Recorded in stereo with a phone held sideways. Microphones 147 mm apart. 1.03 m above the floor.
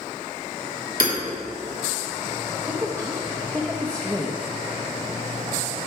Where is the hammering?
80° right, 2.5 m.